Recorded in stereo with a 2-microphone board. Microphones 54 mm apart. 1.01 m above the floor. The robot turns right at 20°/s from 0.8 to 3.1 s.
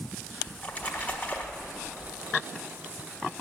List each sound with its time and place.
0.5 s a splash: 35° left (ahead or behind), 1.0 m; by 2.1 s 25° left (ahead or behind), 1.0 m